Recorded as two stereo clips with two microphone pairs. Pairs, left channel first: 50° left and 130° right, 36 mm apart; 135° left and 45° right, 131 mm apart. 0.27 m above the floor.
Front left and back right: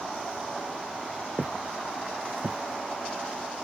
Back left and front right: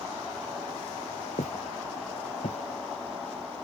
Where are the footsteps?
155° left; by 3.5 s 175° left.